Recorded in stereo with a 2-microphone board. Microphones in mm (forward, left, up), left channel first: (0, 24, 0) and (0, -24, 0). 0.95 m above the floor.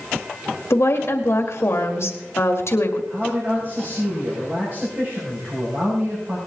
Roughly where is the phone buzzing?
No phone buzzing in this recording.